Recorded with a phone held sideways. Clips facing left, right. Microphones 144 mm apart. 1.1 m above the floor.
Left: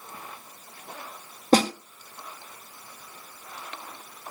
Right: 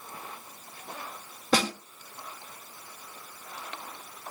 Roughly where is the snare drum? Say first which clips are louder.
Left 6 dB; left.